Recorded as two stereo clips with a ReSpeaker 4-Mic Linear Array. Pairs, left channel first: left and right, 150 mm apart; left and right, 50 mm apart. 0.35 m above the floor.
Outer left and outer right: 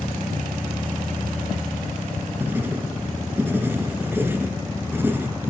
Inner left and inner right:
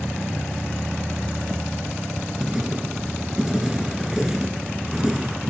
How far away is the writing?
About 2.5 m.